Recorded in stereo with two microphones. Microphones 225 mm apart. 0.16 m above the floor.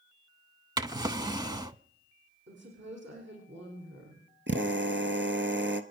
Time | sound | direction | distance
0.8 | a drawer | 20° right (ahead or behind) | 0.6 m
2.5 | a woman speaking | 55° right (ahead or behind) | 8.5 m
4.5 | a drill | 60° right (ahead or behind) | 1.3 m